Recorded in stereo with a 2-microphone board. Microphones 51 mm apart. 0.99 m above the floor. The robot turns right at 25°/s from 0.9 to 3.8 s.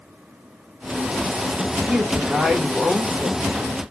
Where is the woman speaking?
20° right, 1.6 m; by 3.5 s 20° left, 1.6 m.